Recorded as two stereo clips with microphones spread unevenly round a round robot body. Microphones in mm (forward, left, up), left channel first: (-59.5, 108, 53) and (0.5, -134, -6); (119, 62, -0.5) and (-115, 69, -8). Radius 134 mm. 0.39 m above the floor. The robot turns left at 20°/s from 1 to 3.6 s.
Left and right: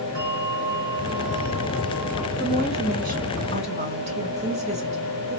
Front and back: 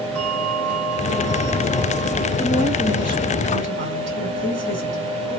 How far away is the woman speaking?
About 2.0 m.